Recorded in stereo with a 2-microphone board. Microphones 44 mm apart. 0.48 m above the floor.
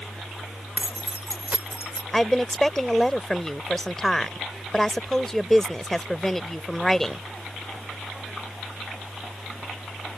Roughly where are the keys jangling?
Right.